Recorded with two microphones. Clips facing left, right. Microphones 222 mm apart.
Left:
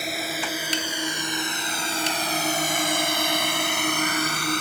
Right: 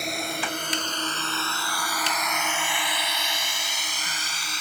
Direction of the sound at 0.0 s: Centre (ahead or behind).